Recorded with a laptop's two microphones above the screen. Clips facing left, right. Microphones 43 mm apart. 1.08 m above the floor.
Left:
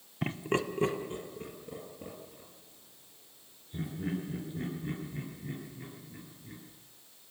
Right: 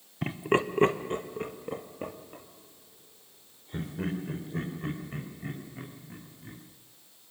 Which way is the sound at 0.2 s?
5° left (ahead or behind).